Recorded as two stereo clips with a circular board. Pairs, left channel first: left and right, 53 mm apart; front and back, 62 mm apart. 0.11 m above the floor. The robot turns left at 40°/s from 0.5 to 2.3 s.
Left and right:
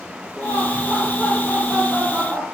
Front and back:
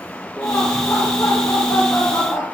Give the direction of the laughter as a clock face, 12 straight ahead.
10 o'clock.